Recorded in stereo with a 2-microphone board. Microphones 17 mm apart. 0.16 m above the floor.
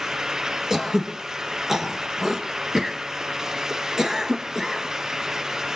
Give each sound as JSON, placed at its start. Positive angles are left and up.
{"t": 0.7, "sound": "throat clearing", "side_deg": -25, "distance_m": 1.3}